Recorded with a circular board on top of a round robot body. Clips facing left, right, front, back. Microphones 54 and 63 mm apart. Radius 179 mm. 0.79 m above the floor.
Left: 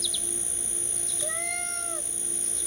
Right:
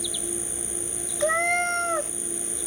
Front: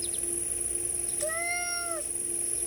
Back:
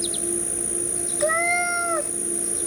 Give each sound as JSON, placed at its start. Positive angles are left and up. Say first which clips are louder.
{"t": 0.0, "sound": "an insect", "louder": "right 4 dB, back 11 dB", "azimuth_deg": -165}
{"t": 1.2, "sound": "a cat meowing", "louder": "right 13 dB, back 11 dB", "azimuth_deg": -140}